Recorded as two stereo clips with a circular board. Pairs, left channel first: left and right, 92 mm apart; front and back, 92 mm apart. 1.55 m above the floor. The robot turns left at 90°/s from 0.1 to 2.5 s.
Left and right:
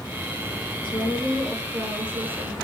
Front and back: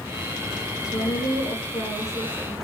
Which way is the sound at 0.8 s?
55° left.